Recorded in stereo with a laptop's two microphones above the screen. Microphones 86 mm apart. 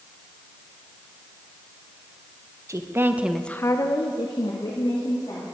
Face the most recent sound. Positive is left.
turn(degrees=70)  # may be behind; listen again after turning